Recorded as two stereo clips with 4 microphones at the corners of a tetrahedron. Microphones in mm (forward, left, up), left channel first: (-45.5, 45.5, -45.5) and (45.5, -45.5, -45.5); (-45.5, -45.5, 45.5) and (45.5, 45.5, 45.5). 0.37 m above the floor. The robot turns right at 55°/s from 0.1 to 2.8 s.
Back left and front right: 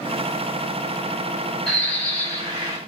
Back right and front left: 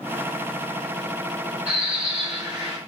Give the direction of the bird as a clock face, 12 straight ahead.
10 o'clock.